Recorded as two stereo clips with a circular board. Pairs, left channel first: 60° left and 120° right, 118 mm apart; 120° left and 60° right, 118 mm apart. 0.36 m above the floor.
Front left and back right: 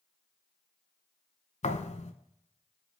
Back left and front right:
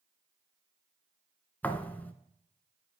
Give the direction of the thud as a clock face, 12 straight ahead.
11 o'clock.